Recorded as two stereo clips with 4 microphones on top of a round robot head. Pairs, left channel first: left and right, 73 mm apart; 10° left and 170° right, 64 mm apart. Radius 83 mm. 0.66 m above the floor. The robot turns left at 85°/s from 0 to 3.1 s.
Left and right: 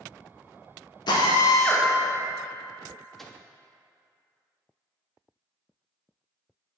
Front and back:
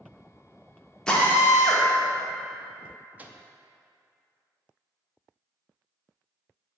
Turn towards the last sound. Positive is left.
turn(degrees=175)